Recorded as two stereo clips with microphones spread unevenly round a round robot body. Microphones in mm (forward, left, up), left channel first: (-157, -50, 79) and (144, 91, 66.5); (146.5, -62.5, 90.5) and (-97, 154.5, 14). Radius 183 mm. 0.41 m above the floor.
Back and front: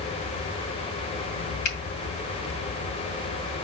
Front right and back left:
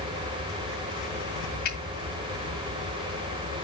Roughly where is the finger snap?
Right.